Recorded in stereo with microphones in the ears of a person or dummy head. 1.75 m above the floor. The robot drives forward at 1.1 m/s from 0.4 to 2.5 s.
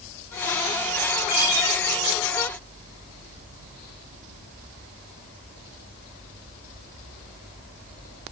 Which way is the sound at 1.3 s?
50° left (ahead or behind).